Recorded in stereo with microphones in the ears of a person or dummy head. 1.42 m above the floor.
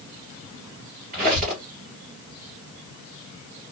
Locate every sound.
1.1 s a squeak: 40° right (ahead or behind), 3 m